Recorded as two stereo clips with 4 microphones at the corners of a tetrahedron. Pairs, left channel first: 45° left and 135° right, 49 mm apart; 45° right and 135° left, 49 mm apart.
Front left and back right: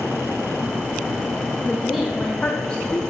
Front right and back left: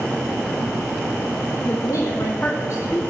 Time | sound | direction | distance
1.6 | a woman speaking | 70° right | 1.3 m